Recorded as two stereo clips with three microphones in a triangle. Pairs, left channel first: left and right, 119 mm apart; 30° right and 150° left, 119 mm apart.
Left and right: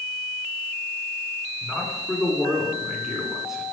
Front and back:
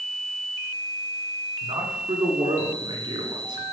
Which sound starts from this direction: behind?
A man speaking, at 1.6 s.